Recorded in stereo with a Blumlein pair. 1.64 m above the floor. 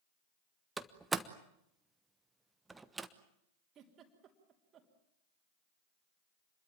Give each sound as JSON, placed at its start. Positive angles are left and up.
{"t": 0.8, "sound": "a door slam", "azimuth_deg": -10, "distance_m": 1.2}
{"t": 3.8, "sound": "a giggle", "azimuth_deg": -30, "distance_m": 3.5}